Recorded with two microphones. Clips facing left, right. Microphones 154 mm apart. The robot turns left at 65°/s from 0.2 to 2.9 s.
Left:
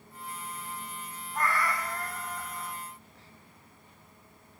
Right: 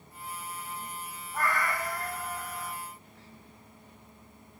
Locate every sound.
1.3 s a cat meowing: 30° right, 2.0 m; by 2.8 s 120° right, 2.0 m